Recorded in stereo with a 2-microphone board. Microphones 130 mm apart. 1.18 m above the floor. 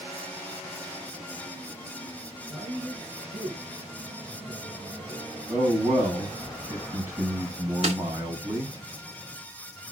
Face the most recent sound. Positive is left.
turn(degrees=-50)  # may be behind; listen again after turning